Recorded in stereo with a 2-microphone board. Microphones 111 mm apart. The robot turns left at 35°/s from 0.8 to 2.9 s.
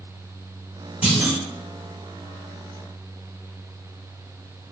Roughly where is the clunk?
Centre.